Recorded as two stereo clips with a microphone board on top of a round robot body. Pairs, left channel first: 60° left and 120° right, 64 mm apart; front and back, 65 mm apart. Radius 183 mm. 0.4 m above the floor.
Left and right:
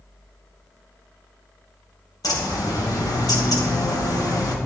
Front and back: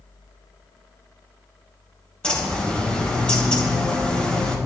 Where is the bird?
75° left, 2.5 m.